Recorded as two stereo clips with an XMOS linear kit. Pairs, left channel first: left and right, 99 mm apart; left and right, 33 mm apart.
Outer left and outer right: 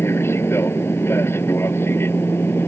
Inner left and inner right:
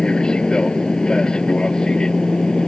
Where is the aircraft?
25° left (ahead or behind).